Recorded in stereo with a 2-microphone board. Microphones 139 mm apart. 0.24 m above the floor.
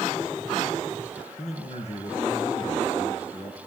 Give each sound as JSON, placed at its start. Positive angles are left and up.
{"t": 1.4, "sound": "a man speaking", "side_deg": 50, "distance_m": 3.5}